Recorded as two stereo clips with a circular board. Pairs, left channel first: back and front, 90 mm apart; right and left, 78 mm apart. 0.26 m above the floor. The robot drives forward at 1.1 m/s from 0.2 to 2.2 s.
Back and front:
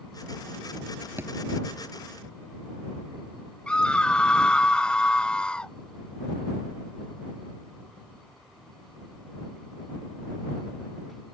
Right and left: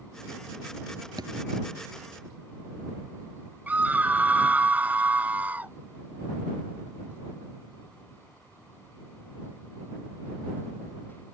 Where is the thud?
60° left; by 1.3 s 70° left.